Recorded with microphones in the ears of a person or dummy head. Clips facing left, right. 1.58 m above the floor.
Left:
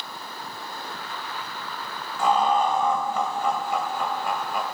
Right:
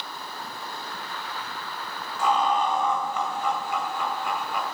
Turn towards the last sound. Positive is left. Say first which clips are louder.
# left 2 dB
turn(degrees=45)  # may be behind; listen again after turning